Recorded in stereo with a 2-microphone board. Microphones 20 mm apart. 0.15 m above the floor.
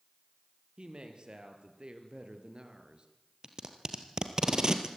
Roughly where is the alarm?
No alarm in this recording.